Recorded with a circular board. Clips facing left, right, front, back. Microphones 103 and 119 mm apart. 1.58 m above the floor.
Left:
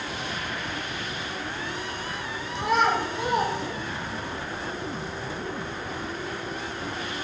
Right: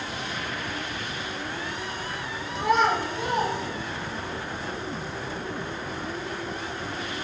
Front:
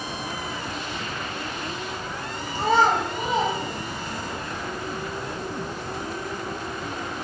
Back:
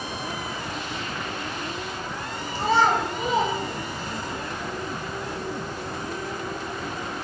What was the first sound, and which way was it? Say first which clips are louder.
A child speaking: right 1 dB, front 1 dB; straight ahead.